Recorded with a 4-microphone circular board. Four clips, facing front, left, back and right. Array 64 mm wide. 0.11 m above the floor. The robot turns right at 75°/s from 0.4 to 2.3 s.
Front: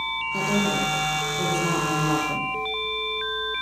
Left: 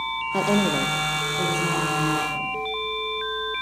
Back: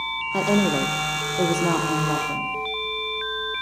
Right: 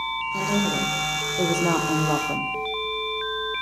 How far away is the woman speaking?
About 5 m.